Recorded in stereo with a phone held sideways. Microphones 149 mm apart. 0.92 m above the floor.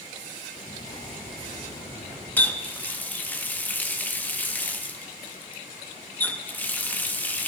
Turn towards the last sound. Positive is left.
turn(degrees=10)  # may be behind; listen again after turning